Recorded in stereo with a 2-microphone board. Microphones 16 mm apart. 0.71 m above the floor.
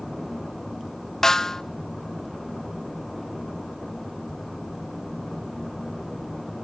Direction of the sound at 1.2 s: 35° left (ahead or behind).